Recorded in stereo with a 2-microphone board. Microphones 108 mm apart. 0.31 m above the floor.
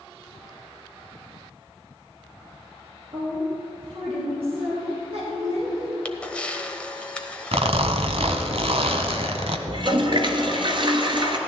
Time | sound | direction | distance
3.1 | a woman speaking | 55° right (ahead or behind) | 4.5 m
6.0 | a camera shutter | 10° left (ahead or behind) | 0.9 m
7.5 | a zipper | 65° right (ahead or behind) | 0.9 m
9.7 | a toilet flushing | 50° right (ahead or behind) | 1.3 m